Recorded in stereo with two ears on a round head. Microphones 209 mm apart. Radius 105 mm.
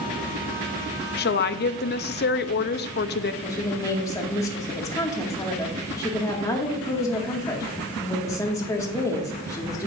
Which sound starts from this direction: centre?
A woman speaking, at 3.4 s.